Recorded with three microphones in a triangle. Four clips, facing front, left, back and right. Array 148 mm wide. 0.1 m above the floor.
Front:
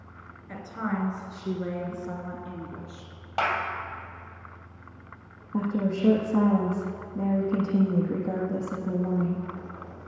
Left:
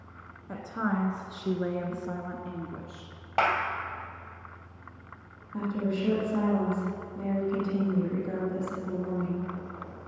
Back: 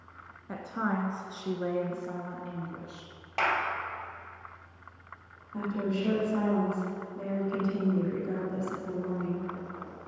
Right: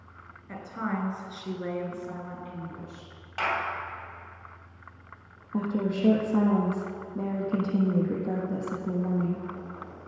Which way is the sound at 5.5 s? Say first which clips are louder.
Right 2 dB, front 4 dB; 55° right.